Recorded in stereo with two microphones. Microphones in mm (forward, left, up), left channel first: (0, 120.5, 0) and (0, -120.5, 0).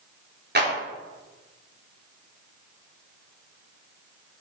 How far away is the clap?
About 3 m.